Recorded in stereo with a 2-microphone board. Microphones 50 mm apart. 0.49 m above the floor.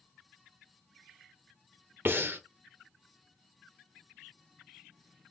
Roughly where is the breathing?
Right.